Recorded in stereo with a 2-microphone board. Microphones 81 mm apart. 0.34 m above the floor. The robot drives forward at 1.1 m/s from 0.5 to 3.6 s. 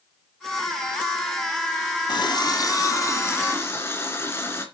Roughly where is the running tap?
Left.